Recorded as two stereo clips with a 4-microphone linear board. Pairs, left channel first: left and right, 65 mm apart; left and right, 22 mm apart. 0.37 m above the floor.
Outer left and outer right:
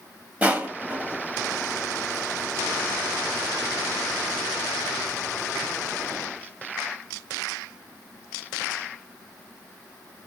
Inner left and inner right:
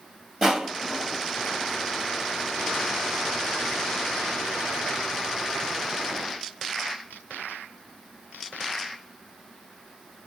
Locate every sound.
0.4 s crushing: 25° right (ahead or behind), 1.0 m